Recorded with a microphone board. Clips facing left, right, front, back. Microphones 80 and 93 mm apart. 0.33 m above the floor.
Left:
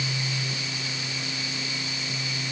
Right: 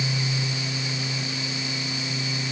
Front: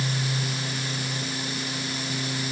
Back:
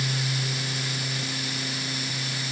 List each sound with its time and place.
Only background noise.